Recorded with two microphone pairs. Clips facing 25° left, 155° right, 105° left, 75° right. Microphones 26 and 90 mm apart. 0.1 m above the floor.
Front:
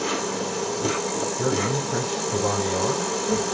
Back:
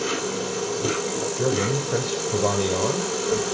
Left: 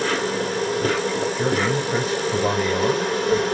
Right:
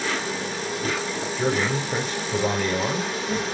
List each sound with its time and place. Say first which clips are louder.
0.0 s an insect: even, left 5 dB; 125° left, 2.5 m
1.4 s a man speaking: back 2 dB, right 1 dB; 165° right, 2 m